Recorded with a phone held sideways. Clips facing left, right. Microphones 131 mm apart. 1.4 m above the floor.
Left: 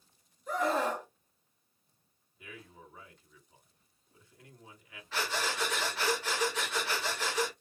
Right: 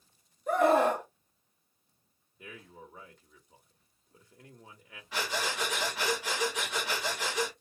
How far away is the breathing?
About 1.4 m.